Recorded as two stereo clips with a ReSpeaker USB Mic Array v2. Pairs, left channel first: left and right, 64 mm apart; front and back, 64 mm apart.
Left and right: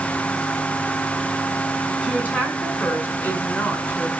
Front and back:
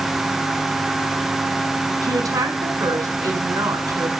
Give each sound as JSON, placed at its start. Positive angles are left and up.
{"t": 2.0, "sound": "a woman speaking", "azimuth_deg": 155, "distance_m": 5.0}